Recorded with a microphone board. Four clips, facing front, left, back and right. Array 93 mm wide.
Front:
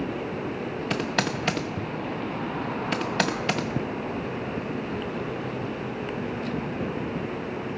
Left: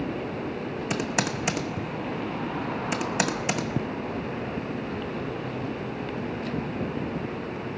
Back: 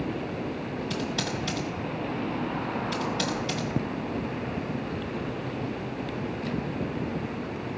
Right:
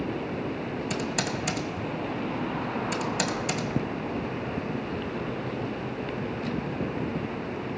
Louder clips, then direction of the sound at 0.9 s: Left 4 dB, front 6 dB; 30° left.